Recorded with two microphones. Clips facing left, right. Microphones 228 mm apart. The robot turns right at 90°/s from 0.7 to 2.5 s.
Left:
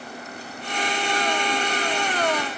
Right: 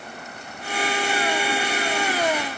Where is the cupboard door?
No cupboard door in this recording.